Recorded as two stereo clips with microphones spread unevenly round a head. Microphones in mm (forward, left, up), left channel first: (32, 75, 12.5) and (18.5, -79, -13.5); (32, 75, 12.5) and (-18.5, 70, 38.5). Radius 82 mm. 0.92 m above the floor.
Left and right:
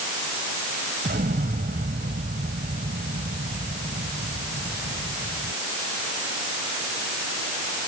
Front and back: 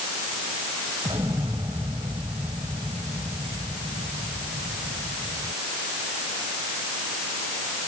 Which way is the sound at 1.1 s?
140° right.